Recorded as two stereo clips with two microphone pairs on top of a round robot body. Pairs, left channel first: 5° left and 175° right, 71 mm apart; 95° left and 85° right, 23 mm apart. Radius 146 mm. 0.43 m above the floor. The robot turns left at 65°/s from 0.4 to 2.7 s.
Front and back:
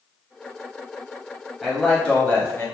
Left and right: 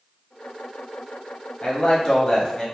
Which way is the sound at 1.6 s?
95° left.